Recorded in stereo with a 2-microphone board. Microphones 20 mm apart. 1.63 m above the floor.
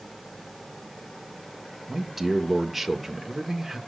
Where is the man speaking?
5° right (ahead or behind), 1.3 m.